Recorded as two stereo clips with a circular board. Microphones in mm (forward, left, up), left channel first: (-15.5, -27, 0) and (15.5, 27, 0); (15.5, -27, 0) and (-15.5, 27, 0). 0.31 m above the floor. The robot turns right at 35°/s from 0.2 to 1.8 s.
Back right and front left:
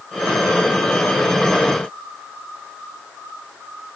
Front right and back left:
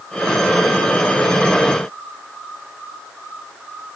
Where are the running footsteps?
I don't hear running footsteps.